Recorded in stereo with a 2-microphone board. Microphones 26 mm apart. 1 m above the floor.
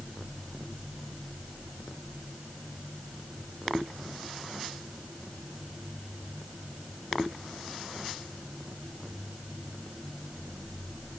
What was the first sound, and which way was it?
Only background noise.